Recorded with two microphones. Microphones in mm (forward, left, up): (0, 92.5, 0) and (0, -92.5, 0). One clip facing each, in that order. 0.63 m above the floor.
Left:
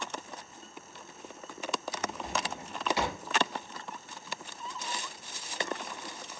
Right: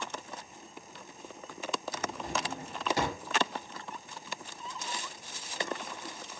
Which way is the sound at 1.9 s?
45° right (ahead or behind).